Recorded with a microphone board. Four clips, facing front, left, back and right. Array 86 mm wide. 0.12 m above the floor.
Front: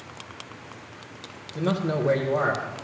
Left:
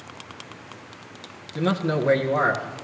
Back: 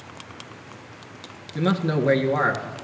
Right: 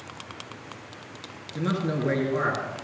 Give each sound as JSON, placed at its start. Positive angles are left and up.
{"t": 1.6, "sound": "a man speaking", "azimuth_deg": 170, "distance_m": 1.8}